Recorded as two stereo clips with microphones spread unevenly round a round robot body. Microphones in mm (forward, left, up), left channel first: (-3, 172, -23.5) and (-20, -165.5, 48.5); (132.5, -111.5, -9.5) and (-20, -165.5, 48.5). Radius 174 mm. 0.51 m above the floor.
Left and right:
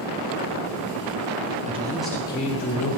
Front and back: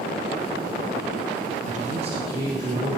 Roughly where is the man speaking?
Behind.